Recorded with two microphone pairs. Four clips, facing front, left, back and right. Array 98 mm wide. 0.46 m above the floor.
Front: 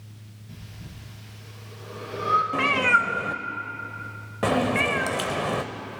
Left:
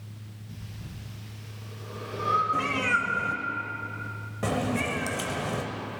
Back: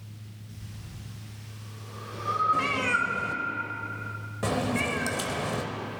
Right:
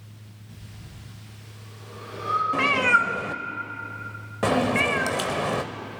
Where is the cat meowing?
55° right, 0.8 m.